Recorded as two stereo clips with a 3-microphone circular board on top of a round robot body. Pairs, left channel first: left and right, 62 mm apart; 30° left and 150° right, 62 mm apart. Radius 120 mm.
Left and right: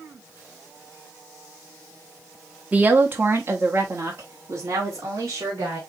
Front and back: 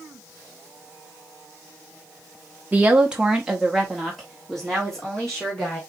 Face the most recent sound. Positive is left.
turn(degrees=-45)